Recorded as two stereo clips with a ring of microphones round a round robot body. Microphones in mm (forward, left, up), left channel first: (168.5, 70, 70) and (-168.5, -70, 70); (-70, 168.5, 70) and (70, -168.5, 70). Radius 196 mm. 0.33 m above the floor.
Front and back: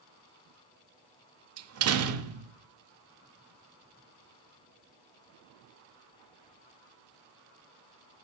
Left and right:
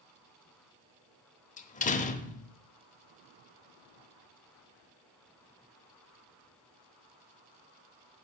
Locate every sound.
1.6 s a door slam: 175° left, 0.8 m